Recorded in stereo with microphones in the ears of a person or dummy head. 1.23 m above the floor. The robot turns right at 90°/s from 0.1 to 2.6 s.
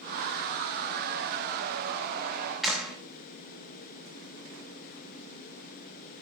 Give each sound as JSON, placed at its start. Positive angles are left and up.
{"t": 2.6, "sound": "a clap", "side_deg": 0, "distance_m": 3.5}